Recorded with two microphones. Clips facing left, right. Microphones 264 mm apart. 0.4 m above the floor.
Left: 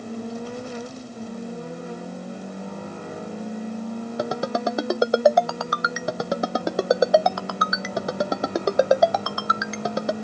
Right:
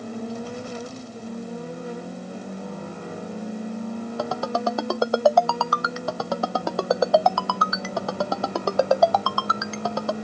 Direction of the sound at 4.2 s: 20° left (ahead or behind).